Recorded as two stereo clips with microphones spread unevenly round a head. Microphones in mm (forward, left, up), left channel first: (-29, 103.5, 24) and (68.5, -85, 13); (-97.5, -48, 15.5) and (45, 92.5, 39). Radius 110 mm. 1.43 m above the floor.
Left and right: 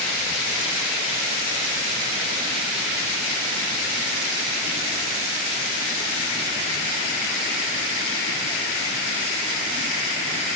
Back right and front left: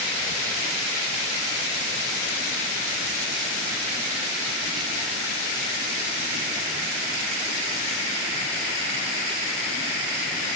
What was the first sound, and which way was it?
Only background noise.